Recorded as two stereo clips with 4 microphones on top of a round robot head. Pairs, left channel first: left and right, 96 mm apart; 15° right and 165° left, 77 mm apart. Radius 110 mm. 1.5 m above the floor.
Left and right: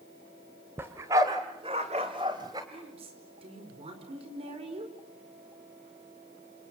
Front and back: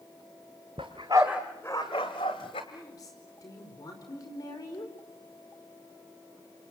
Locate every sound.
0.8 s a dog barking: 150° right, 1.6 m; by 2.6 s 30° right, 1.8 m
2.7 s a woman speaking: 60° right, 5 m